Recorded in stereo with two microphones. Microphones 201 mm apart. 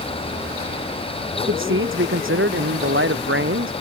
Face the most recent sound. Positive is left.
turn(degrees=-85)